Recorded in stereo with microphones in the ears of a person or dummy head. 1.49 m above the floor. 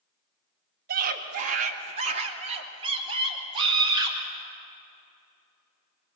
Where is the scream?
55° right (ahead or behind), 1.8 m; by 4.2 s 25° right (ahead or behind), 4 m.